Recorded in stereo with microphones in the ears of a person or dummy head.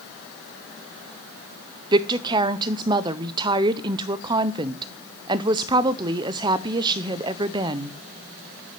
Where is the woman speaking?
25° right (ahead or behind), 0.6 m.